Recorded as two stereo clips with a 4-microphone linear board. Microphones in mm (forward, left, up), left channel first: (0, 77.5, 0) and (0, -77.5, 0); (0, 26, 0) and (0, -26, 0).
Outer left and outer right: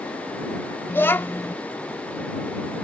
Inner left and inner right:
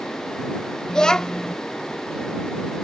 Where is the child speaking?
15° left (ahead or behind).